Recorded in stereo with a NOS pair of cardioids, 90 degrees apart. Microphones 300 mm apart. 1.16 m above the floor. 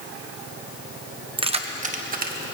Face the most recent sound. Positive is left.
turn(degrees=-30)